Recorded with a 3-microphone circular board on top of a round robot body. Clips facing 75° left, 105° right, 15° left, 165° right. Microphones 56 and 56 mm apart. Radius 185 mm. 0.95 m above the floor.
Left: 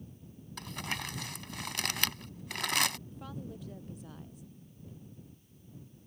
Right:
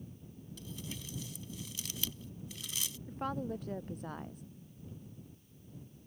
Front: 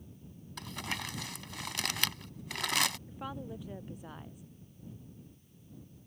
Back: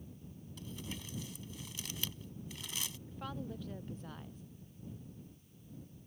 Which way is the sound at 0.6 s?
45° left.